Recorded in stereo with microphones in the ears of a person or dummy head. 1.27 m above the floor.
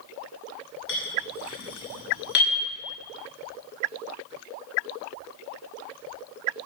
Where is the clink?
70° left (ahead or behind), 4.5 m.